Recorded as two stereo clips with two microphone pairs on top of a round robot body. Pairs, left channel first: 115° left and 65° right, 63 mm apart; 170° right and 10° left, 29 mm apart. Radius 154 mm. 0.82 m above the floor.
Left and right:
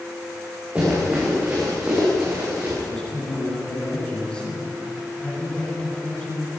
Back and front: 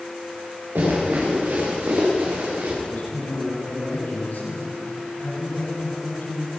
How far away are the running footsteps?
About 10 m.